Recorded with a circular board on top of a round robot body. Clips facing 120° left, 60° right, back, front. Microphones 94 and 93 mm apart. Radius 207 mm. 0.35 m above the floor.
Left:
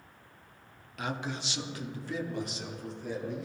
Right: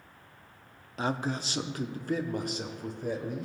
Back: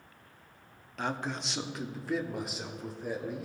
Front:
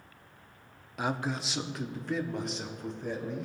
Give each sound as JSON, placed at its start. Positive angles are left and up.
{"t": 1.0, "sound": "a man speaking", "azimuth_deg": -70, "distance_m": 0.9}